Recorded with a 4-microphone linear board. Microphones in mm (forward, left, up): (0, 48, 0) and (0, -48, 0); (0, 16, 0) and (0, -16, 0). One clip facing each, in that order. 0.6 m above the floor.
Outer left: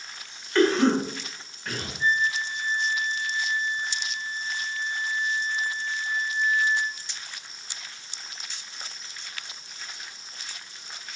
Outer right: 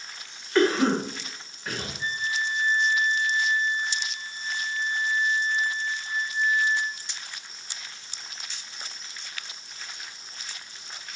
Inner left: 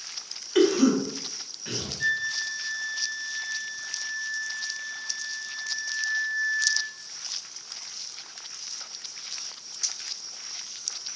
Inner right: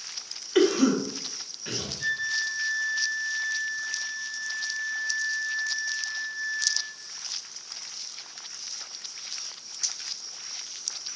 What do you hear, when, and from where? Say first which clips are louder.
0.6 s a cough: outer left 1 dB, inner left 1 dB; 5° right (ahead or behind), 0.7 m
2.0 s a flute: outer left 5 dB, inner left 1 dB; 30° left (ahead or behind), 1.1 m